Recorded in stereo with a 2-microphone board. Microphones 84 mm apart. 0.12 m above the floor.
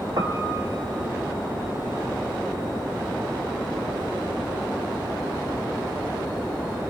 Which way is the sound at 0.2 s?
50° right (ahead or behind).